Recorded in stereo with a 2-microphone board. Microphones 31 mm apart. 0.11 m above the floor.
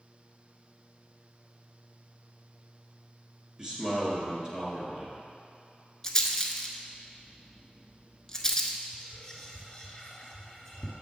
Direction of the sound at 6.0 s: 20° left (ahead or behind).